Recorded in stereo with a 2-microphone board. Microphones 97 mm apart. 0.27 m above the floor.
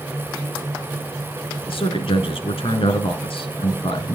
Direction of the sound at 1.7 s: 70° left (ahead or behind).